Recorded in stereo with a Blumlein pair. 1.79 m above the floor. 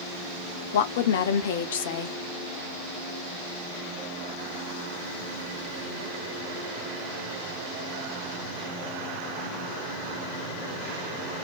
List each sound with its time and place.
0.7 s a woman speaking: 55° left, 0.7 m